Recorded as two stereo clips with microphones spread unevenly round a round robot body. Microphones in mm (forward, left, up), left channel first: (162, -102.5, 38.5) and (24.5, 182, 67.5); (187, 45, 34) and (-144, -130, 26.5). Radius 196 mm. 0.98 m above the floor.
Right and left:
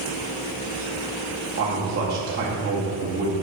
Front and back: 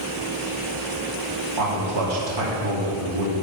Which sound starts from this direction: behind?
A man speaking, at 1.6 s.